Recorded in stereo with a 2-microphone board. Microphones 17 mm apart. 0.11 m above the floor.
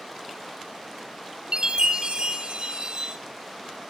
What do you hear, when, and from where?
1.5 s a chime: 50° right (ahead or behind), 2.5 m